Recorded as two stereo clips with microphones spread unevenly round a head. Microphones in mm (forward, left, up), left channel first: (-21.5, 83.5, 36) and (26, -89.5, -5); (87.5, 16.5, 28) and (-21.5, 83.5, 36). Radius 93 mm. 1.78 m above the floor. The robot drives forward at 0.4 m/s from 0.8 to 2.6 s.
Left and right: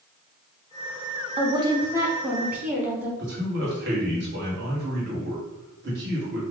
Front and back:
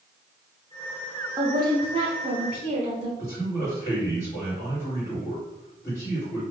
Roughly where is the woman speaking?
Behind right.